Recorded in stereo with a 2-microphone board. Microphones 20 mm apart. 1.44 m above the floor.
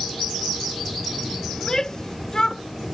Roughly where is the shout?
Left.